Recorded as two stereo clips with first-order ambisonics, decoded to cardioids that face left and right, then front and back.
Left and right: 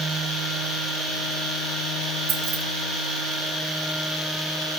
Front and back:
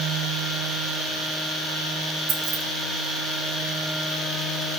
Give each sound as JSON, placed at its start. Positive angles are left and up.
{"t": 2.3, "sound": "keys jangling", "azimuth_deg": -135, "distance_m": 2.5}